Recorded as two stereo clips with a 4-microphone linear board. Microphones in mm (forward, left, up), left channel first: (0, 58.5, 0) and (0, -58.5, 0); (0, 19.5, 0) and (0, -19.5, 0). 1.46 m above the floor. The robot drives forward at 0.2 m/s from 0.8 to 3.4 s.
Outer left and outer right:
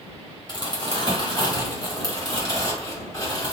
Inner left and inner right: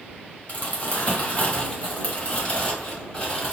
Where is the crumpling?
40° left (ahead or behind), 1.0 m; by 3.5 s 25° left (ahead or behind), 1.5 m.